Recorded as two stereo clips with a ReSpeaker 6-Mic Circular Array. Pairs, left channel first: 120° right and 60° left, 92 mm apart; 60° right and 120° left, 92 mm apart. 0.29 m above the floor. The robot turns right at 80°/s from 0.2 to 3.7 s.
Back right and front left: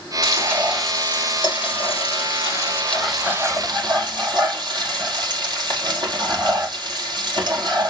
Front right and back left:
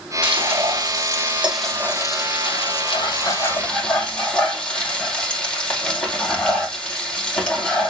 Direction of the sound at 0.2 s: 100° left.